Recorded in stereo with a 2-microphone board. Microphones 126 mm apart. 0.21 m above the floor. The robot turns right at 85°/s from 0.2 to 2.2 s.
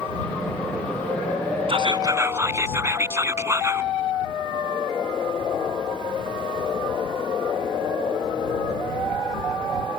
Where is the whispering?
70° right; by 3.9 s 30° right.